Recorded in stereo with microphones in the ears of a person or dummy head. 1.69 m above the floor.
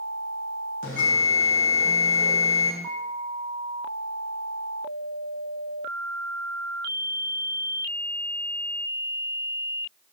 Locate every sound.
0.8 s a bell: 70° left (ahead or behind), 2 m